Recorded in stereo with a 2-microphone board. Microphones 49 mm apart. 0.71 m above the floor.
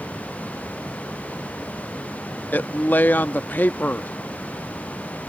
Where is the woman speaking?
40° left (ahead or behind).